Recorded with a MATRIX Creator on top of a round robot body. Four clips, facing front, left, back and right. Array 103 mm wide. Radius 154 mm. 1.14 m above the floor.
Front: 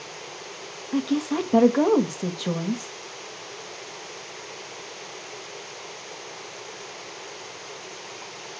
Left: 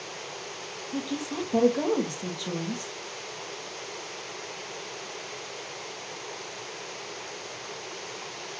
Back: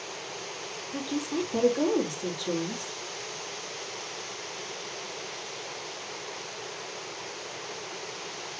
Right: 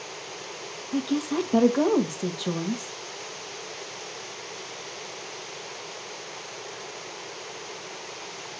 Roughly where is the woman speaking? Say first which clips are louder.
Right 6 dB, front 7 dB; ahead.